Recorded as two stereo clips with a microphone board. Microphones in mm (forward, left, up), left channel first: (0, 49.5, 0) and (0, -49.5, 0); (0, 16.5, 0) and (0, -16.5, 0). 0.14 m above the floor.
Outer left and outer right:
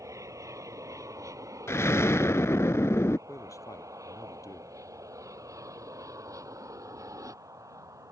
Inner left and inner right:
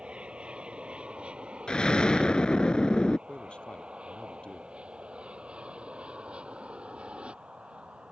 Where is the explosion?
25° left (ahead or behind).